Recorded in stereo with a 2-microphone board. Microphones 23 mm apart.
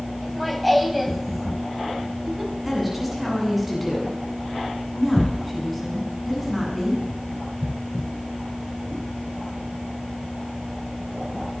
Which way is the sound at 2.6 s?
5° right (ahead or behind).